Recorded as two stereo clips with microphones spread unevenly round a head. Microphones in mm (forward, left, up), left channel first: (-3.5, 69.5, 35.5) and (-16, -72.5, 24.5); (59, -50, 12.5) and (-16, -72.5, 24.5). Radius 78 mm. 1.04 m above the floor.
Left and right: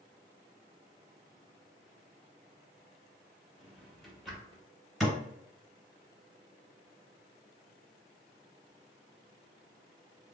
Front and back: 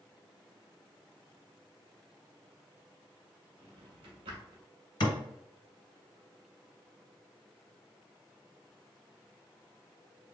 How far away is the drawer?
About 1.3 m.